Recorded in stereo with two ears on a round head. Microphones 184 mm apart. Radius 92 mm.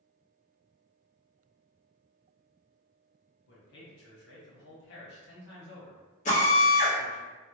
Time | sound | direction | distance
3.5 | a man speaking | 55° left (ahead or behind) | 1.3 m
6.2 | a drill | 35° left (ahead or behind) | 1.3 m